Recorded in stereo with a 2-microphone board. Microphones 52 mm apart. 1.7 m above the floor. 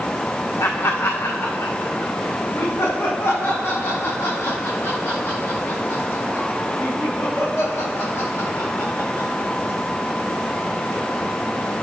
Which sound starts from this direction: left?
Laughter, at 0.6 s.